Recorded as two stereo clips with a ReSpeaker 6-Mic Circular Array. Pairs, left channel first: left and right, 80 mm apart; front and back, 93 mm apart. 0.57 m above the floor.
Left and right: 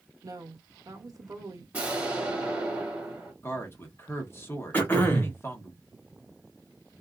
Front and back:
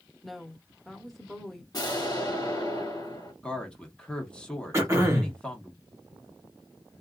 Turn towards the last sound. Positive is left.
turn(degrees=140)